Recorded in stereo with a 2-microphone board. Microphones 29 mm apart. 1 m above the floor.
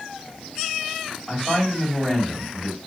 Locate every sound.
1.3 s a woman speaking: 10° left (ahead or behind), 3 m